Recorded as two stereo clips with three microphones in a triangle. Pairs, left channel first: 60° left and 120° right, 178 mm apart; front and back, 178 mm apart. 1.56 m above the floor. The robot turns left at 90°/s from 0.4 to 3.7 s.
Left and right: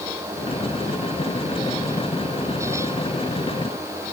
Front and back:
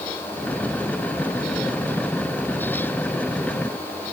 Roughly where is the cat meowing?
No cat meowing in this recording.